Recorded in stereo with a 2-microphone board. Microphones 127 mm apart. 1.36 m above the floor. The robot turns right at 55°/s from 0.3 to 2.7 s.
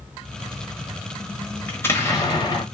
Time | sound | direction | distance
1.7 | an explosion | 20° left | 1.3 m